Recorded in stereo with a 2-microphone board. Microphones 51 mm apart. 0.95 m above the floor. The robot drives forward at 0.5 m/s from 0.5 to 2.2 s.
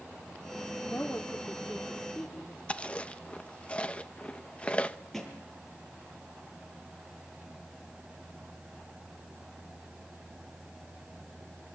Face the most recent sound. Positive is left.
turn(degrees=5)  # may be behind; listen again after turning